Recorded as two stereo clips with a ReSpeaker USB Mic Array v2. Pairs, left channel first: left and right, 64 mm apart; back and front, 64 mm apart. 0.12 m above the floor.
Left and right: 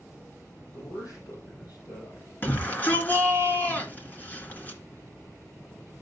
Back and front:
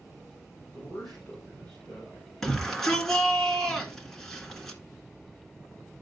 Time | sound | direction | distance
0.7 | a man speaking | 105° left | 4.5 m
2.4 | a shout | 105° left | 1.8 m